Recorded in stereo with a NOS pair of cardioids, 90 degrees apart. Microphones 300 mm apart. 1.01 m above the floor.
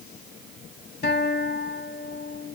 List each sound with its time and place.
1.0 s a guitar: 35° left, 1.7 m